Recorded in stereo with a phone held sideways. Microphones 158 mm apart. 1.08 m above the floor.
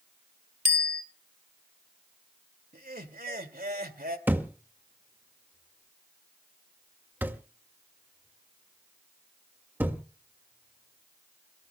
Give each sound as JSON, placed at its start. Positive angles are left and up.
{"t": 0.7, "sound": "a bicycle bell", "side_deg": -85, "distance_m": 3.0}
{"t": 2.7, "sound": "laughter", "side_deg": -70, "distance_m": 2.0}
{"t": 4.3, "sound": "a thud", "side_deg": -10, "distance_m": 1.8}